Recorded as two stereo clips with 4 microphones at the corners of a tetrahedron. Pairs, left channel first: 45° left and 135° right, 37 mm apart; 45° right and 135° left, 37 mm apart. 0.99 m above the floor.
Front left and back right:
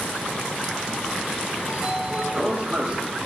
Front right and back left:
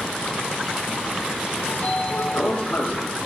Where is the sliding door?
75° right, 1.0 m.